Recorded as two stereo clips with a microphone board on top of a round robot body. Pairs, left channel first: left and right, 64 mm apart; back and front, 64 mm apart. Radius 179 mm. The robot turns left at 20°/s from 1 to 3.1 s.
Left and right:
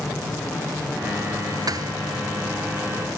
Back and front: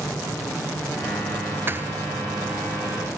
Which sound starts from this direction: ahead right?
A thud, at 1.7 s.